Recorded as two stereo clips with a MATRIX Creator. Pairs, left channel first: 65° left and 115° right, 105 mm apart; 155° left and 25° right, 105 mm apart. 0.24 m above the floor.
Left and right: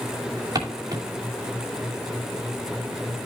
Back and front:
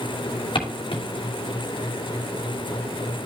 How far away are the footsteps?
About 2.5 m.